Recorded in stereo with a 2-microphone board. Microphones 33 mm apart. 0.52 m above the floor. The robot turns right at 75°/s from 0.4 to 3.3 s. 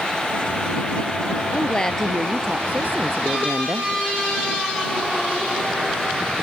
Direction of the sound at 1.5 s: 135° left.